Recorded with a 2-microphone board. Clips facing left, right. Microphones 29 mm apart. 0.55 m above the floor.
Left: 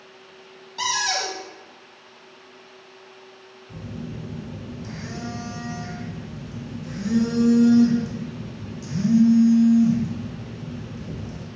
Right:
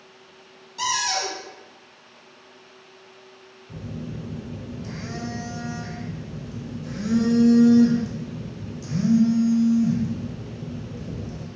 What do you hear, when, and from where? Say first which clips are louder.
0.8 s a cupboard door: left 1 dB; 40° left (ahead or behind), 0.9 m
3.7 s a phone buzzing: even; 5° left (ahead or behind), 1.6 m